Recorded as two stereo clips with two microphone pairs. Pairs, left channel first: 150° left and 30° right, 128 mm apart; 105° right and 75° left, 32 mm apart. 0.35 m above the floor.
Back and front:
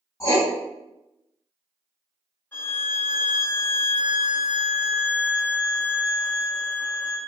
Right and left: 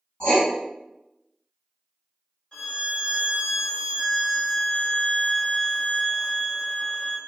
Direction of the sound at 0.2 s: 155° right.